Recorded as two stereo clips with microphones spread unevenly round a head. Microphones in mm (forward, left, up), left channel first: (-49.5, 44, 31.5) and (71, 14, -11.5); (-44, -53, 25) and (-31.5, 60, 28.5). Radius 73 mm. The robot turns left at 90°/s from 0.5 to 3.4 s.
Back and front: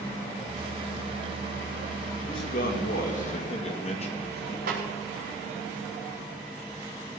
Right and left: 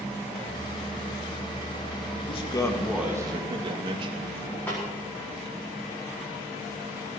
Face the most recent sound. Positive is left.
turn(degrees=-20)